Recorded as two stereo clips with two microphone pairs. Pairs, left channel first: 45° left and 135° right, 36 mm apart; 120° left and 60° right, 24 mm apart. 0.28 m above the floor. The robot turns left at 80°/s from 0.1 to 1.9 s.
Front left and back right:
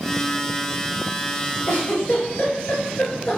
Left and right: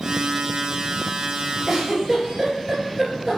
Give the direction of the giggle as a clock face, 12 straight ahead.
11 o'clock.